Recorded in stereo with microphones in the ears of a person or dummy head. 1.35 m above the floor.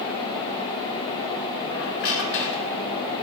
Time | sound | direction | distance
1.7 | a squeak | 60° left (ahead or behind) | 2.5 m